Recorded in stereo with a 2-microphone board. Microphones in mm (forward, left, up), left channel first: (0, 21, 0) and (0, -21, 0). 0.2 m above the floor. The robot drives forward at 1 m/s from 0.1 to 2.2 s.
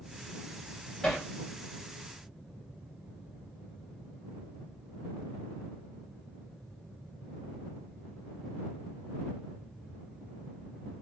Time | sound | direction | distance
1.0 | hammering | 15° left (ahead or behind) | 7 m